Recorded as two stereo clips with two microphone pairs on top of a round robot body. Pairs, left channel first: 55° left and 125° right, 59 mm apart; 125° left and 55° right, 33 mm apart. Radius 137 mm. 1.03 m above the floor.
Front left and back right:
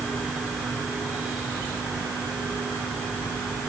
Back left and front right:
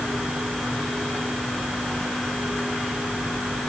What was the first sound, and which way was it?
Only background noise.